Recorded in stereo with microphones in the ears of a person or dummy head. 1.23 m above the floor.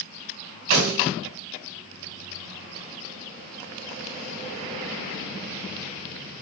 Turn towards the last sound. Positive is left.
turn(degrees=-65)  # may be behind; listen again after turning